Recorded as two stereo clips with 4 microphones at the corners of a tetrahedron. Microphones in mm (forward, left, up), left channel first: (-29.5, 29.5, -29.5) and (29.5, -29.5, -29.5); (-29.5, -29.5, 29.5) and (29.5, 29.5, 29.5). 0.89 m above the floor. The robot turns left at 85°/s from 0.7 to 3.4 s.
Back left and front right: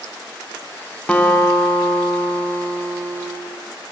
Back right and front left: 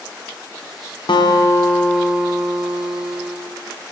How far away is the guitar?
About 0.8 m.